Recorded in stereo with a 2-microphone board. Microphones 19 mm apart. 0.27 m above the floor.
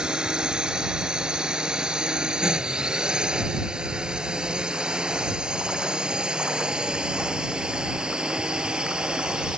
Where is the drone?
50° right (ahead or behind); by 9.6 s 55° right (ahead or behind).